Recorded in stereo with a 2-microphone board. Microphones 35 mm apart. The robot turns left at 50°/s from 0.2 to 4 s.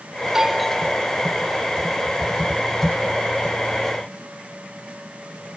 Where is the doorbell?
160° right; by 1.4 s 140° left.